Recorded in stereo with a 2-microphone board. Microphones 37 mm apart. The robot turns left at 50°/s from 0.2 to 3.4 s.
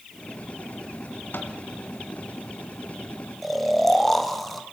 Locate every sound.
1.3 s a microwave: 60° left (ahead or behind), 2 m; by 1.6 s 65° left (ahead or behind), 2 m
3.4 s snoring: 5° left (ahead or behind), 1.6 m